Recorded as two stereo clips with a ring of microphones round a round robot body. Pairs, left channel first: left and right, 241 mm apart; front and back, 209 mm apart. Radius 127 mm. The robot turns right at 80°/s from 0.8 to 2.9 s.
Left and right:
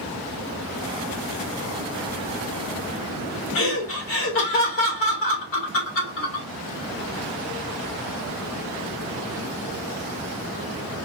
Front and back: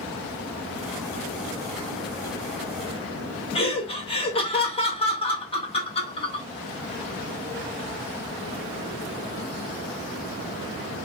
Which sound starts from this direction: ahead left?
Laughter, at 3.5 s.